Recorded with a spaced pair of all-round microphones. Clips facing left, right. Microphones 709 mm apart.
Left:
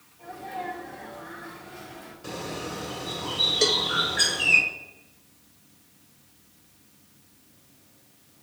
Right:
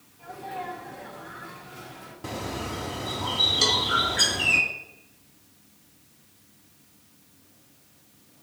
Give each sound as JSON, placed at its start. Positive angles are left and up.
{"t": 0.2, "sound": "a sneeze", "side_deg": -35, "distance_m": 6.0}
{"t": 2.2, "sound": "a bird", "side_deg": -80, "distance_m": 3.0}
{"t": 3.6, "sound": "a cowbell", "side_deg": 65, "distance_m": 1.5}